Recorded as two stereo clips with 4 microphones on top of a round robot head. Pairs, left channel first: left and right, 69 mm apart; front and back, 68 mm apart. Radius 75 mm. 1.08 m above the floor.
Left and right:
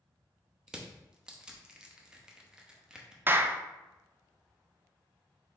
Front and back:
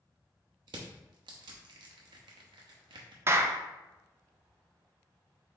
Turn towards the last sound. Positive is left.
turn(degrees=-140)